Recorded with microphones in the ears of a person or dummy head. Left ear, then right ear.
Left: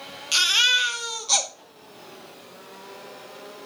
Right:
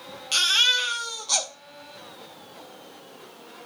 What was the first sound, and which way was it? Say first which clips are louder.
A baby crying: left 1 dB; 5° right (ahead or behind).